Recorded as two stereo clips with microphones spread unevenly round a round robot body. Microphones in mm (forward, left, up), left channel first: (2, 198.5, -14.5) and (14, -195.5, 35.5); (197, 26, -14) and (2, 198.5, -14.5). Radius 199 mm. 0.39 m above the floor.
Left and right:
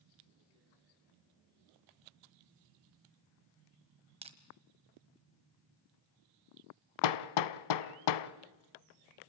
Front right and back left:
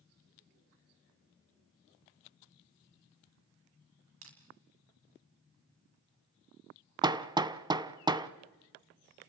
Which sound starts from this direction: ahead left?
Hammering, at 7.0 s.